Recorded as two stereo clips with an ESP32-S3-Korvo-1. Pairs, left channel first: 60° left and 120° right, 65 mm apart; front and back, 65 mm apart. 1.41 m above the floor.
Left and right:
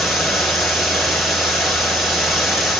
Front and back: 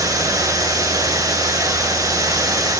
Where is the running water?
150° left, 9 m.